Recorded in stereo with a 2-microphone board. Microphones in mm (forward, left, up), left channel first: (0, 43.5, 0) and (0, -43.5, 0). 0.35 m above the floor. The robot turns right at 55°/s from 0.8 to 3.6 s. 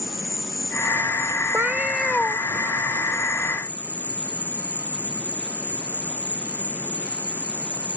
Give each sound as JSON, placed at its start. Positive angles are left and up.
{"t": 0.0, "sound": "an insect", "azimuth_deg": 5}
{"t": 1.5, "sound": "a cat meowing", "azimuth_deg": -25}